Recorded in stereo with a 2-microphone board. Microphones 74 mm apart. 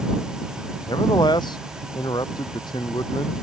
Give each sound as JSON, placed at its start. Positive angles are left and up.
{"t": 0.9, "sound": "a man speaking", "side_deg": 80}